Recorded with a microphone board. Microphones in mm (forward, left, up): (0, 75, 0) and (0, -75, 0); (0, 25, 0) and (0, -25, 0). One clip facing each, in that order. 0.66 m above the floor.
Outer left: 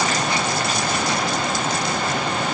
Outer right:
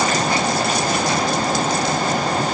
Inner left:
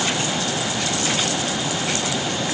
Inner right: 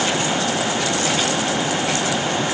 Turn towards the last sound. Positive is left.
No sound to turn to.